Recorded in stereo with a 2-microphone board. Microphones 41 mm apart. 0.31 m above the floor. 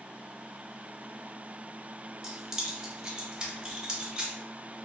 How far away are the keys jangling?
About 0.8 m.